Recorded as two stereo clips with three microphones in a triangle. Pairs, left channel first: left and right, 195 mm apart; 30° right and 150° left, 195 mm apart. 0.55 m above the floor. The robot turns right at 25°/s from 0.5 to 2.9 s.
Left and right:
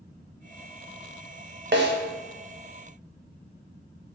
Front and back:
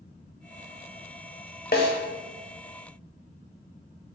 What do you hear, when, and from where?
1.7 s a snare drum: 70° right, 0.6 m; by 1.9 s 60° right, 0.6 m